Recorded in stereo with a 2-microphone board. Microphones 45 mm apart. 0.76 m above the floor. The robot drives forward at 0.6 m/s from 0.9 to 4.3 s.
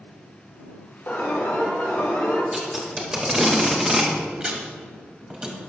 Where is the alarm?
65° left (ahead or behind), 3 m; by 2.4 s 55° left (ahead or behind), 3 m.